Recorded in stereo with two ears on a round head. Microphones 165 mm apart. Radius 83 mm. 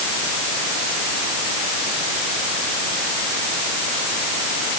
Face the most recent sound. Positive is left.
No sound to turn to.